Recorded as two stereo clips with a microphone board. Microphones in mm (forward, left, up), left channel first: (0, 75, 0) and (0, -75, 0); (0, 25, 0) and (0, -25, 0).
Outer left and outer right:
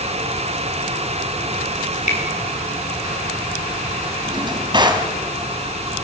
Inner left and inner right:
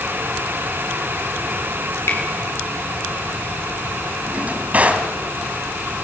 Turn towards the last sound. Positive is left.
turn(degrees=-30)  # may be behind; listen again after turning